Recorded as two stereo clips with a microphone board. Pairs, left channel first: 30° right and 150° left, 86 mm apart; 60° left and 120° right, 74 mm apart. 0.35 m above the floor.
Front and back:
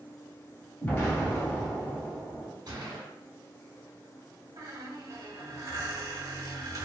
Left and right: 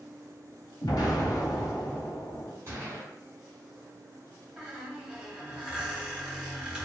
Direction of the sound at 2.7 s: 170° right.